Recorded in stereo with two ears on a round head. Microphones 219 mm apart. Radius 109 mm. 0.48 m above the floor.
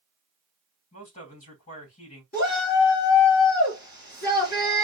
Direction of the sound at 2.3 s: 35° left (ahead or behind).